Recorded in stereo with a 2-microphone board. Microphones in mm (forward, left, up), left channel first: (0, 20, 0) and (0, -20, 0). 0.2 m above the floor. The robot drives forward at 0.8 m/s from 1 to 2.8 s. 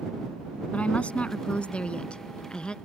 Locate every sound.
0.7 s a woman speaking: 30° left (ahead or behind); by 2.8 s 20° left (ahead or behind)